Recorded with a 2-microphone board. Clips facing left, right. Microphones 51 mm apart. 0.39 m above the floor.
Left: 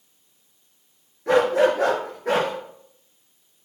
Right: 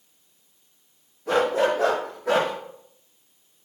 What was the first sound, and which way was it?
A dog barking, 75° left (ahead or behind).